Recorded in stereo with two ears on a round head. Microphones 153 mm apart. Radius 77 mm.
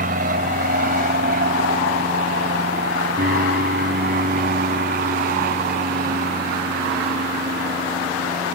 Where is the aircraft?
50° right (ahead or behind); by 8.6 s 55° right (ahead or behind).